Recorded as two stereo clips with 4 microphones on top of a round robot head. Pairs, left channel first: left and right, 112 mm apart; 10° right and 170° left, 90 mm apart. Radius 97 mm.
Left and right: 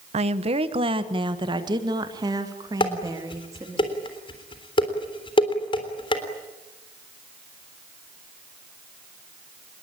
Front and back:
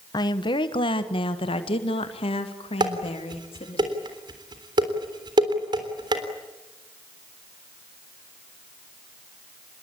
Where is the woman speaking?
60° right, 1.2 m; by 3.8 s 25° right, 3.5 m.